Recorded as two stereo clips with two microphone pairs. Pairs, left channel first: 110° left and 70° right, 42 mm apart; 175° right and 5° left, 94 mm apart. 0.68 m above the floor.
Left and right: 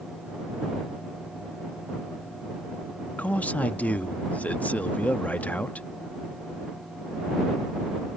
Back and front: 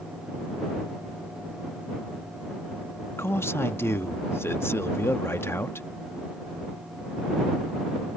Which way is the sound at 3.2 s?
130° left.